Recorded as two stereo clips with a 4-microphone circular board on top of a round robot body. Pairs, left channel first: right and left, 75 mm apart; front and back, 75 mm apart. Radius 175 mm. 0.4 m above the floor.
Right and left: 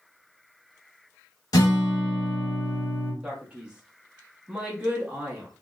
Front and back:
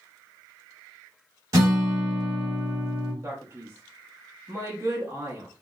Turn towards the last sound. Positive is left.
turn(degrees=155)